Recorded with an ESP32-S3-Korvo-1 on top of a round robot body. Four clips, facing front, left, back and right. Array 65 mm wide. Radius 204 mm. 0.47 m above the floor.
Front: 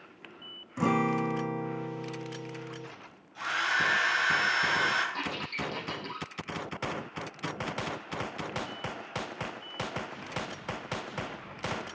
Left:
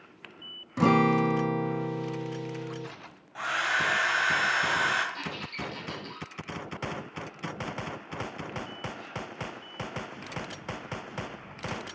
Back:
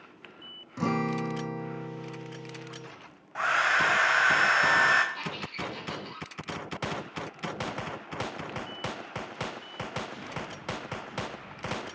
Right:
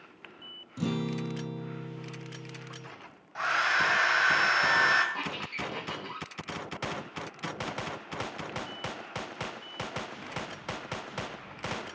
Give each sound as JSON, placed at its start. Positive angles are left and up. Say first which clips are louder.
{"t": 0.8, "sound": "a guitar", "louder": "left 10 dB, front 2 dB", "azimuth_deg": 75, "distance_m": 0.5}
{"t": 3.4, "sound": "a hair dryer", "louder": "right 1 dB, back 4 dB", "azimuth_deg": -170, "distance_m": 2.0}
{"t": 5.1, "sound": "a squeak", "louder": "right 1 dB, front 2 dB", "azimuth_deg": -55, "distance_m": 4.0}